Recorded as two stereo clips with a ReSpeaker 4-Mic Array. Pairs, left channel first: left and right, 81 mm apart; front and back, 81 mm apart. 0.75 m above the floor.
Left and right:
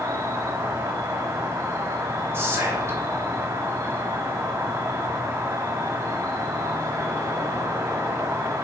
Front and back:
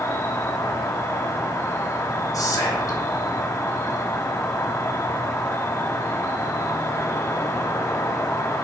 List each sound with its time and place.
0.0 s an insect: 50° right, 1.0 m
2.3 s whispering: 40° right, 3.5 m